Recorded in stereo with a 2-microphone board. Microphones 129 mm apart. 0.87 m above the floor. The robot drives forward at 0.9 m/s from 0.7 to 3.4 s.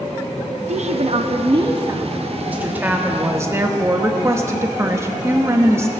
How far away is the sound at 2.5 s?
About 1.9 m.